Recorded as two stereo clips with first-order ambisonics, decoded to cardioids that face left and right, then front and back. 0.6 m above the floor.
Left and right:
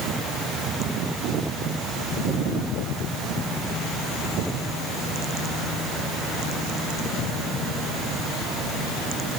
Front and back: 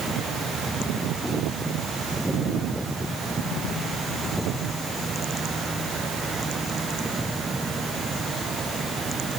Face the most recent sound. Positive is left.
No sound to turn to.